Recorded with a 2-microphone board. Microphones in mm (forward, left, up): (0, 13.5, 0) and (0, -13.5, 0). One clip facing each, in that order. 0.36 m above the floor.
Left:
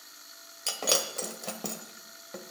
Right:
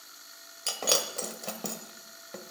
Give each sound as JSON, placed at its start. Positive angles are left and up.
{"t": 0.7, "sound": "breaking glass", "side_deg": -5, "distance_m": 1.1}